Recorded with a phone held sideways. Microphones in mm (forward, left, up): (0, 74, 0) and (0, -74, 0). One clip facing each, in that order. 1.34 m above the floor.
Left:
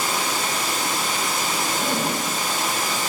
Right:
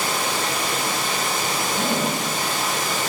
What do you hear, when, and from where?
0.0 s running water: 60° right (ahead or behind), 2.5 m
1.7 s a zipper: 50° right (ahead or behind), 2.5 m